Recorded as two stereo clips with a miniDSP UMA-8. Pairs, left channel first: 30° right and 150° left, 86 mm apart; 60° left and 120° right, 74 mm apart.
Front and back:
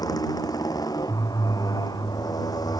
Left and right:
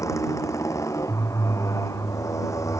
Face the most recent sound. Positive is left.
turn(degrees=15)